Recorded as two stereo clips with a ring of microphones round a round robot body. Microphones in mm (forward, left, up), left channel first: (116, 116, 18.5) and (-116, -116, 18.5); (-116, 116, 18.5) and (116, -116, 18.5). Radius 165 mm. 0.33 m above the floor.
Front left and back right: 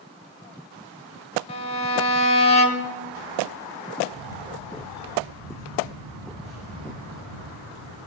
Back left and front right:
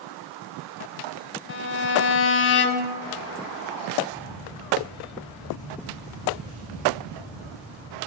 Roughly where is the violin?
Left.